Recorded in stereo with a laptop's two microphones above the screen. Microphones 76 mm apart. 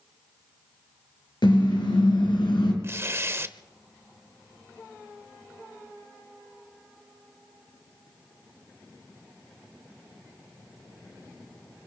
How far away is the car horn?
About 6 m.